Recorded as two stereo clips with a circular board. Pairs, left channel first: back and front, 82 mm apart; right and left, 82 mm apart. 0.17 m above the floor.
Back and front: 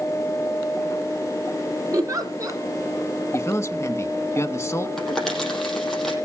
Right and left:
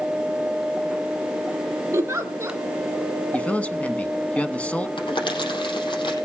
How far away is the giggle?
About 2 m.